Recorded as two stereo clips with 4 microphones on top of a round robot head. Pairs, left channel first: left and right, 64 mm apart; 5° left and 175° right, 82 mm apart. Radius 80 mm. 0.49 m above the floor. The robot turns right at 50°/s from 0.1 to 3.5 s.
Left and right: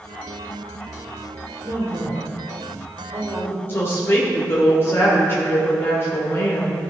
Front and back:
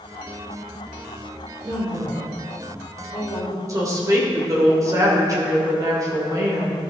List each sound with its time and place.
1.6 s a woman speaking: 125° right, 2 m; by 3.6 s 30° right, 2 m
3.7 s a woman speaking: 140° left, 2 m